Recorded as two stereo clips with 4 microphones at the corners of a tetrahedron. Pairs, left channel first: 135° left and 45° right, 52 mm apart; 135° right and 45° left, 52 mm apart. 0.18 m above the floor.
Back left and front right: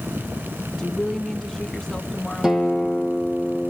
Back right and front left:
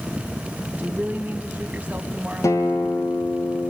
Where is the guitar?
125° right, 2 m.